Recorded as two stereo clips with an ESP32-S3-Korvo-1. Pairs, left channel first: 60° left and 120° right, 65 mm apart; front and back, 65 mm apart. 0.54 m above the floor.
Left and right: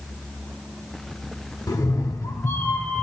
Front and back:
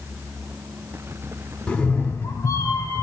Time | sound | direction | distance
1.7 | a cat meowing | 75° left | 0.7 m